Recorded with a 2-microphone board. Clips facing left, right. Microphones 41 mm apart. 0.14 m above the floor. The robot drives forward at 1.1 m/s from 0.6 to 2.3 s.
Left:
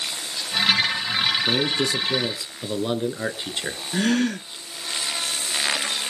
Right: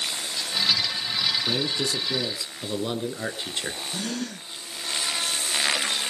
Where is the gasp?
60° left (ahead or behind), 0.6 m.